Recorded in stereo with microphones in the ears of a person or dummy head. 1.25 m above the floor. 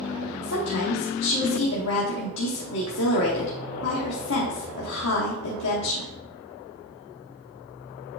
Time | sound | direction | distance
0.4 | a woman speaking | 75° left (ahead or behind) | 1.4 m